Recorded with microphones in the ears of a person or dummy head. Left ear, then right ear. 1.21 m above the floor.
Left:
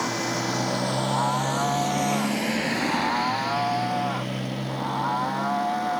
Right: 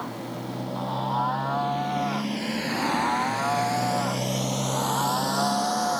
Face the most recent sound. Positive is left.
turn(degrees=-75)  # may be behind; listen again after turning